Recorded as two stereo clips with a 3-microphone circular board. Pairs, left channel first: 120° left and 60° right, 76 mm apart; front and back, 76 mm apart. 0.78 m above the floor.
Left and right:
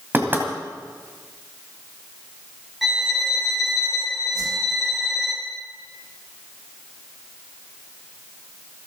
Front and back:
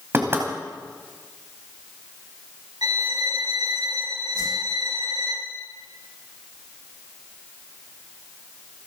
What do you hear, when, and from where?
0.1 s knocking: 120° right, 3 m
2.8 s a violin: 145° right, 3.5 m
4.3 s a whoosh: 25° right, 8.5 m